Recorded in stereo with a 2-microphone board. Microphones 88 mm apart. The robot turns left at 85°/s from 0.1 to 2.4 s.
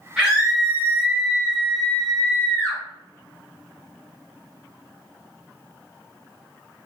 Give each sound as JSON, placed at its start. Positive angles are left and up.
{"t": 0.2, "sound": "a scream", "side_deg": -10, "distance_m": 1.2}